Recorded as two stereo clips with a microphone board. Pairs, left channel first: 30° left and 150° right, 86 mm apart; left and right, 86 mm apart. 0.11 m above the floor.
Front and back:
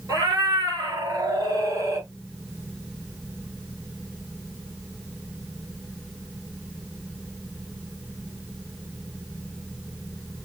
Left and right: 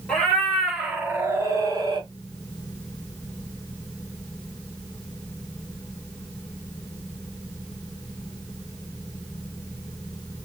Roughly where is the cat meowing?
Behind.